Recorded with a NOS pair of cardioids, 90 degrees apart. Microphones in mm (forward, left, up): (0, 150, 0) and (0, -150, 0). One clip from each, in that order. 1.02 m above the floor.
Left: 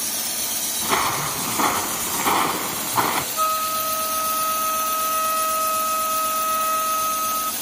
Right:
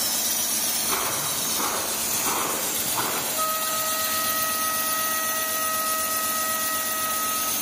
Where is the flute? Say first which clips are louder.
Left 4 dB; 55° left, 2.5 m.